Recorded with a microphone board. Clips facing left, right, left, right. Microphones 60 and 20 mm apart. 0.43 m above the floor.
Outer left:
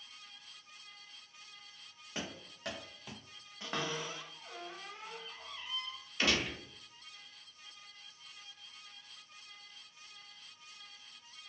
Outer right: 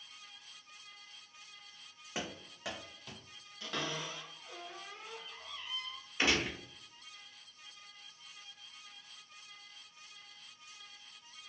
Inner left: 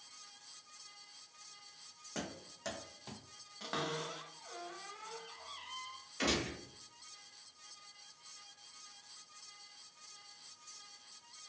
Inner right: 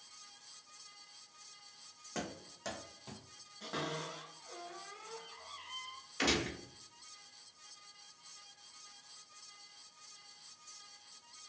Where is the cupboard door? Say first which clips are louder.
Outer left 1 dB, inner left 1 dB; 30° left (ahead or behind), 0.9 m.